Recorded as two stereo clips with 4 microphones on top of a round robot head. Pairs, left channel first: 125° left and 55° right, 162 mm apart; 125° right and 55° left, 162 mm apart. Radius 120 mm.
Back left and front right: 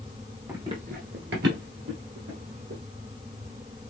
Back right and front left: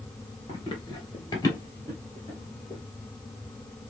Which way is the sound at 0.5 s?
120° right.